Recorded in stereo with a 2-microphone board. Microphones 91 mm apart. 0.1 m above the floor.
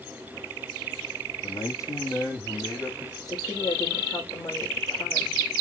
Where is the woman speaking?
45° left (ahead or behind), 7 m.